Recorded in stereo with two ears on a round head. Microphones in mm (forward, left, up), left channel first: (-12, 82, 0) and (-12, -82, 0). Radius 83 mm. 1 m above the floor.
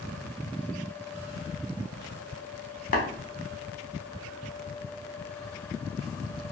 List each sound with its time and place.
2.9 s tapping: 50° left (ahead or behind), 0.8 m